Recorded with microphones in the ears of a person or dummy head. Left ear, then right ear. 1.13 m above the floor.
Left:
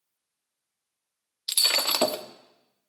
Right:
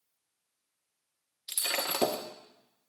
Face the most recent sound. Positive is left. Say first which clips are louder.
# left 9 dB
turn(degrees=40)  # may be behind; listen again after turning